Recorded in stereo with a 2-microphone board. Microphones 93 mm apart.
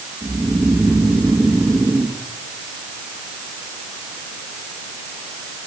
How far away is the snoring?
About 2.5 m.